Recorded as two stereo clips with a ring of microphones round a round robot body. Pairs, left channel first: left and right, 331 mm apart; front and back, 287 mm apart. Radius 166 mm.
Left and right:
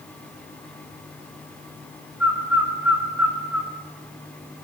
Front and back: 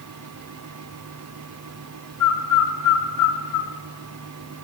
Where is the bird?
5° right, 1.0 m.